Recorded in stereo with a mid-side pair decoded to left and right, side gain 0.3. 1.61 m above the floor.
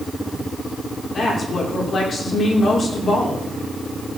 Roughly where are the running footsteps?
I don't hear running footsteps.